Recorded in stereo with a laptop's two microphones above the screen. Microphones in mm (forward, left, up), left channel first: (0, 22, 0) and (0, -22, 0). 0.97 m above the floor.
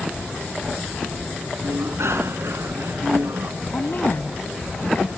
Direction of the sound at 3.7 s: 50° left (ahead or behind).